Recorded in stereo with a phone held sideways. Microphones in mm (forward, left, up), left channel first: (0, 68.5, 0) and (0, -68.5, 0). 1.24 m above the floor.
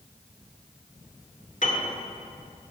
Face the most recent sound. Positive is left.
turn(degrees=65)  # may be behind; listen again after turning